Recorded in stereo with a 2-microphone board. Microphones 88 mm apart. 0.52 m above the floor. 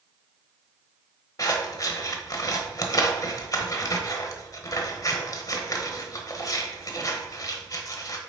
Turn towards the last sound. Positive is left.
turn(degrees=45)  # may be behind; listen again after turning